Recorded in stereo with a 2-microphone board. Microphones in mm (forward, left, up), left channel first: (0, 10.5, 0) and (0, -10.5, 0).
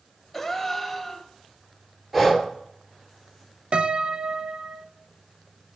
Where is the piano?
60° right (ahead or behind), 0.5 m.